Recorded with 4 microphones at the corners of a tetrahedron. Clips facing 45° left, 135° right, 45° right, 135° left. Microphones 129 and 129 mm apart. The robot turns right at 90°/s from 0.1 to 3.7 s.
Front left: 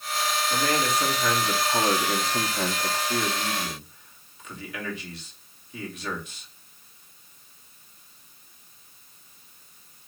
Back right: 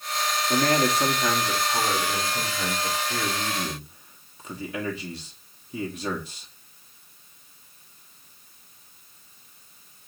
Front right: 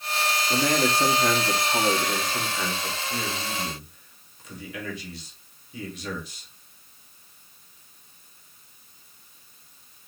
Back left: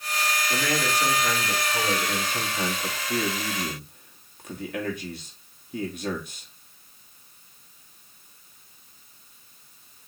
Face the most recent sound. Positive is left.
turn(degrees=170)